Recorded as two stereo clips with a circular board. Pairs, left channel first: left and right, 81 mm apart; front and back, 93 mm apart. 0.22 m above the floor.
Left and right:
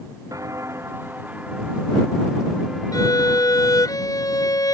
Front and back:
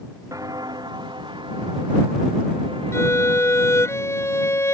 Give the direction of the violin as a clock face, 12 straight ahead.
10 o'clock.